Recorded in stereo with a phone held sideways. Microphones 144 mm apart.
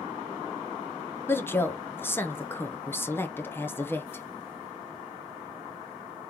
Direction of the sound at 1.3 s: 15° left (ahead or behind).